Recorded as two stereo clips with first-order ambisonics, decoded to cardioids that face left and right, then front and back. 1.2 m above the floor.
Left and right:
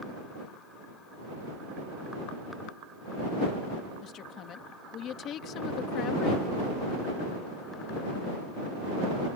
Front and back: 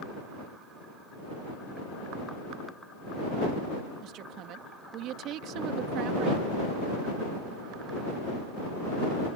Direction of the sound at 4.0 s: 140° left.